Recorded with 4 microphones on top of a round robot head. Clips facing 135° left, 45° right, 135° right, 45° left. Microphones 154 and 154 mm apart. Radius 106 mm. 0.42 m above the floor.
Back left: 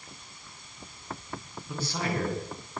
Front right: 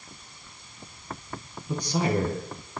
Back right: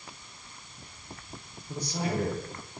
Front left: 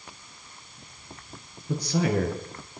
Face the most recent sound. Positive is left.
turn(degrees=30)